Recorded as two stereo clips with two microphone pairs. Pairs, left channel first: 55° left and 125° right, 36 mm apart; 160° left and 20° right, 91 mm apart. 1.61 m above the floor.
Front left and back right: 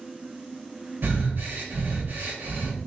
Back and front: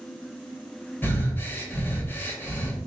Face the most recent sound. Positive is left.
turn(degrees=-140)